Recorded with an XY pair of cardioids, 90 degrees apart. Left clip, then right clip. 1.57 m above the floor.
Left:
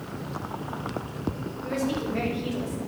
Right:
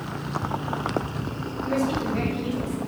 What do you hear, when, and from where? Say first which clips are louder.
1.6 s a woman speaking: right 3 dB; 15° left, 6.5 m